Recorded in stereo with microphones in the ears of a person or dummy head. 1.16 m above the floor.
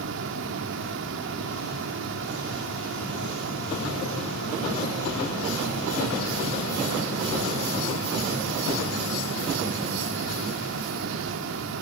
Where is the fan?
70° right (ahead or behind), 1.6 m.